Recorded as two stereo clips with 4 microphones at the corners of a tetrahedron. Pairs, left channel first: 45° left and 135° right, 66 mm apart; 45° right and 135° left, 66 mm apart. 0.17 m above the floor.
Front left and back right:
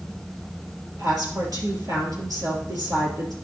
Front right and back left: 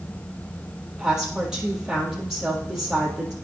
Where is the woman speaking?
145° right, 3.5 m.